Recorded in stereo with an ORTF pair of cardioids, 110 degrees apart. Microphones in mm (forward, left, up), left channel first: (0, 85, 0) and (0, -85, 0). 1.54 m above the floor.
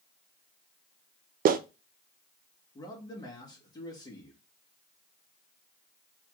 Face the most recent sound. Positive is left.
turn(degrees=20)